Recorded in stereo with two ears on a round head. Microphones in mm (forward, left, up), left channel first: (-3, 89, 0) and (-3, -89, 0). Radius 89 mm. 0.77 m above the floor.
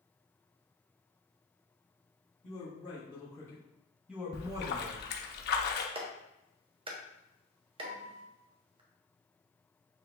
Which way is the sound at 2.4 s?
30° left (ahead or behind).